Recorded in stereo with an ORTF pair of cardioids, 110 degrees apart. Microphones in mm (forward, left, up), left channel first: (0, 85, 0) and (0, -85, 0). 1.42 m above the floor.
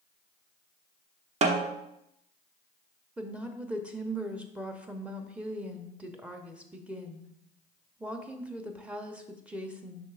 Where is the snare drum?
40° right, 0.9 m.